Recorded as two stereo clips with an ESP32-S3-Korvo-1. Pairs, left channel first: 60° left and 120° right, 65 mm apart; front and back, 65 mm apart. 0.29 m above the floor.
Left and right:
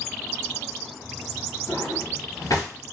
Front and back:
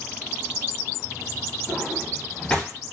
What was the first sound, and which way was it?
A drawer, 80° left.